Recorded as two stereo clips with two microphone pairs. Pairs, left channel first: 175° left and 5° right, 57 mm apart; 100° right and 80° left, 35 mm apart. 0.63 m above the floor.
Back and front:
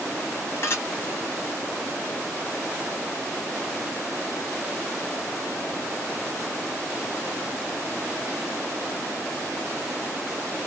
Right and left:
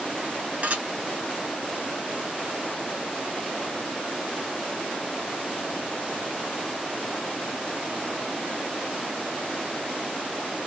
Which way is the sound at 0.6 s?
130° left.